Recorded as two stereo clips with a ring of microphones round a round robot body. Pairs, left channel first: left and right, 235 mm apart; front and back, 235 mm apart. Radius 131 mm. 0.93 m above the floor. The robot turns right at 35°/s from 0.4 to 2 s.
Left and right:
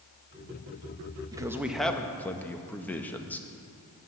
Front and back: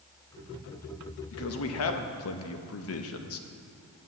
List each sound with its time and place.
1.3 s a man speaking: 15° right, 1.0 m; by 3.5 s 5° left, 1.0 m